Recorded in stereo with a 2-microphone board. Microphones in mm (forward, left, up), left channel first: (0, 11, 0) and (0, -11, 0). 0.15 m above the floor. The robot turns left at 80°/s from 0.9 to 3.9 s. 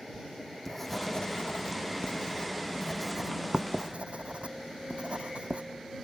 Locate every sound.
0.1 s writing: 10° left (ahead or behind); by 5.6 s 70° right (ahead or behind)